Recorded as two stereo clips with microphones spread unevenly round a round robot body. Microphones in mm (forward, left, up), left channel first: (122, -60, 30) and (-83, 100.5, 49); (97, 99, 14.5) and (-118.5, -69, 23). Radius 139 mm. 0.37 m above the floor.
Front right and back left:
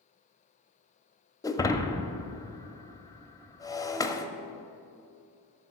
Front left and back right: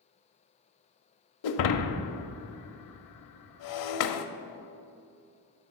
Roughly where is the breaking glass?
Ahead left.